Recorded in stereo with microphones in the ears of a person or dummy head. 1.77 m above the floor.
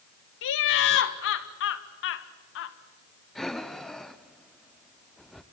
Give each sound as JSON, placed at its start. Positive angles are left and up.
{"t": 0.4, "sound": "laughter", "side_deg": 75, "distance_m": 1.5}
{"t": 3.4, "sound": "breathing", "side_deg": 0, "distance_m": 0.7}